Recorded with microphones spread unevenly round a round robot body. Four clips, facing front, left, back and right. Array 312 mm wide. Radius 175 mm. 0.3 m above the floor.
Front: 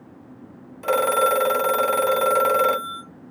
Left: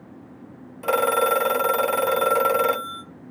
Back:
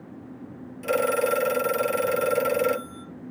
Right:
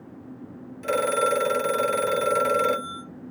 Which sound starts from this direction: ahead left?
A phone ringing, at 0.8 s.